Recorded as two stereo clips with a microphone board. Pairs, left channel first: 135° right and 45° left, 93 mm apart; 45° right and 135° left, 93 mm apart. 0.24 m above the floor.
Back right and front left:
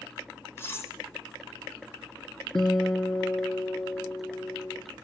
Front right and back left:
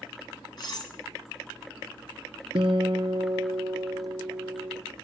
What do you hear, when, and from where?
0.6 s cutlery clinking: 75° right, 1.2 m
2.5 s a guitar: 145° left, 0.9 m